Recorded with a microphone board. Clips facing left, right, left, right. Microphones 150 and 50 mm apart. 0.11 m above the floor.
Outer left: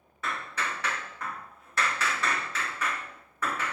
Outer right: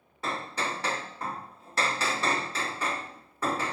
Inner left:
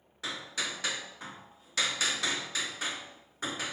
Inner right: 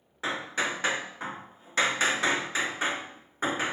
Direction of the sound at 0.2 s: 30° right (ahead or behind).